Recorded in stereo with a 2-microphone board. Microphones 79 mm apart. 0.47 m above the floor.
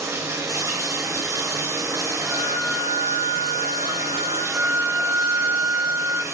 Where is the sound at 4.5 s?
30° right (ahead or behind), 0.8 m.